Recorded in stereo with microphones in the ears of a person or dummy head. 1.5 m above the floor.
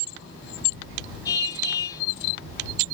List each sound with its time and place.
1.2 s a car horn: 20° left (ahead or behind)